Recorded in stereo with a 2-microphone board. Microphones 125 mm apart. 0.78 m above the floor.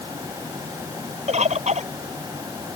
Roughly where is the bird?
Right.